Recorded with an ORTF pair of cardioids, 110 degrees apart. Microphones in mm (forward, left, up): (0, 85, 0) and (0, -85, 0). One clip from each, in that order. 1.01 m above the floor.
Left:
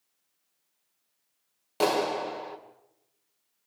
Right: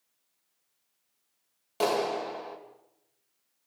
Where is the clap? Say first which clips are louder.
Left 2 dB; 15° left, 3 m.